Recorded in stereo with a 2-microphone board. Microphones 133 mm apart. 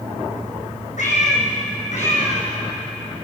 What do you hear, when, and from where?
1.0 s a cat meowing: 65° left (ahead or behind), 4.5 m; by 2.5 s 60° left (ahead or behind), 6 m